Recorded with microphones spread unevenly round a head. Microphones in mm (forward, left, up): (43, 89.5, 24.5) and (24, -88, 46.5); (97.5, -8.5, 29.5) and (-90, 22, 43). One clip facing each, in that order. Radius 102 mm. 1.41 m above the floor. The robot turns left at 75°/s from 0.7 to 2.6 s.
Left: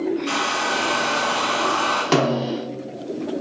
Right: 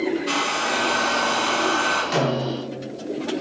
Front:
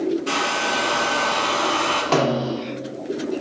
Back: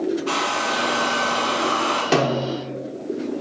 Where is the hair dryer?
55° left, 2 m; by 2.0 s 45° right, 2 m.